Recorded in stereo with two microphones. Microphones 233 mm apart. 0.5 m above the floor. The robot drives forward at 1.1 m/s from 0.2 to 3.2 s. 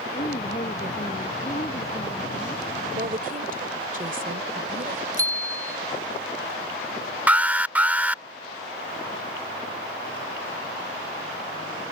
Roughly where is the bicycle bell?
Right.